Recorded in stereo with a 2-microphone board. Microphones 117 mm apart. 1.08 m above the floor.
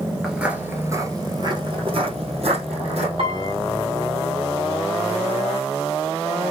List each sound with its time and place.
0.2 s footsteps: 5° right (ahead or behind), 1.3 m; by 3.1 s 65° right (ahead or behind), 2.5 m
3.2 s a piano: 60° right (ahead or behind), 1.5 m